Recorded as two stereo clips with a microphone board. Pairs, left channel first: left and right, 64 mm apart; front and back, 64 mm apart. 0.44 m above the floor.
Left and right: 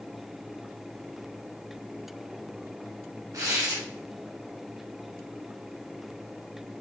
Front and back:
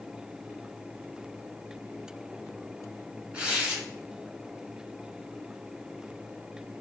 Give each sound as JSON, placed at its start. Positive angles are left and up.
{"t": 3.3, "sound": "tearing paper", "azimuth_deg": -110, "distance_m": 1.2}